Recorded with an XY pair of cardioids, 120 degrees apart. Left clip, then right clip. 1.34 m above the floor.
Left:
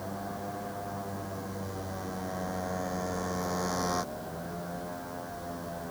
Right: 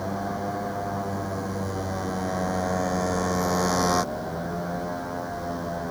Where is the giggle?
No giggle in this recording.